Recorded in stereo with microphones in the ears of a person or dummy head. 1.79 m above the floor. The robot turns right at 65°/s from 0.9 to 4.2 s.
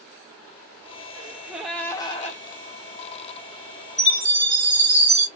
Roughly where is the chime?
Centre.